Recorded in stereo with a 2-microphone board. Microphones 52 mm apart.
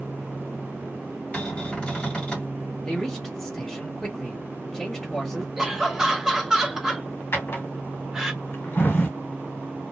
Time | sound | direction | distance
1.3 | a cupboard door | 20° left (ahead or behind) | 1.7 m
2.9 | a man speaking | 10° left (ahead or behind) | 1.0 m
5.6 | laughter | 10° right (ahead or behind) | 1.1 m
7.3 | a drawer | 45° left (ahead or behind) | 1.1 m